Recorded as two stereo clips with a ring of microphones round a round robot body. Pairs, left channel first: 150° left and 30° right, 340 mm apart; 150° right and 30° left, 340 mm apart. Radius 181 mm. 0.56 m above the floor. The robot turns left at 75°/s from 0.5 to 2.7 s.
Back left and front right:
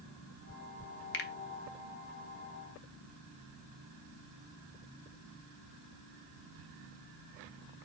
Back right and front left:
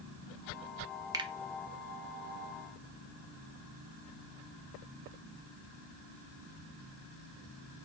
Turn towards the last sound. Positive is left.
turn(degrees=-10)